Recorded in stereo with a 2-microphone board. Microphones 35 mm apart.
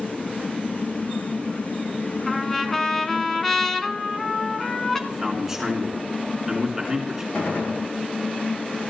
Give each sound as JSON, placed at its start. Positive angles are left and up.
{"t": 2.3, "sound": "a trumpet", "side_deg": 5, "distance_m": 1.3}
{"t": 5.1, "sound": "a man speaking", "side_deg": -15, "distance_m": 2.5}
{"t": 7.3, "sound": "a gunshot", "side_deg": 70, "distance_m": 8.5}